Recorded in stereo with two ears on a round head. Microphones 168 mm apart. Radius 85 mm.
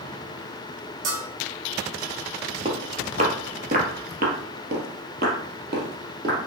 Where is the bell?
40° right (ahead or behind), 4 m.